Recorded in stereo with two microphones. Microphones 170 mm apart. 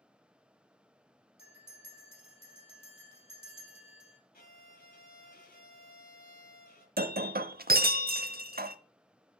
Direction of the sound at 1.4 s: 35° left (ahead or behind).